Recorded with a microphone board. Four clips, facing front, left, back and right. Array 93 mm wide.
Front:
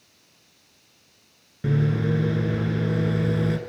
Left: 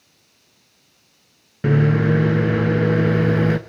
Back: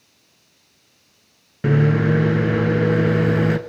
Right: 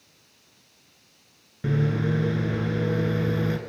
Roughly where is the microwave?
Behind left.